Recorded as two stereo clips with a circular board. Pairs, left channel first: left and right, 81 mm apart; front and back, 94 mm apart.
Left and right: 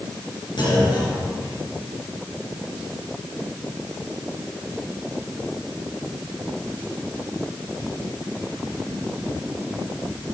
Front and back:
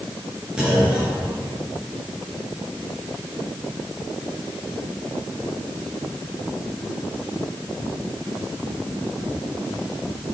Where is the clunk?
100° left, 3.5 m.